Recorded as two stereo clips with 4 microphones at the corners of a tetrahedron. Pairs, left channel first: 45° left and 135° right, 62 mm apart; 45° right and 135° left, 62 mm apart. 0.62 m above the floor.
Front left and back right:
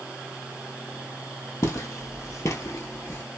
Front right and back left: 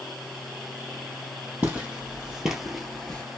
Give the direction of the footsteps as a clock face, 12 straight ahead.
9 o'clock.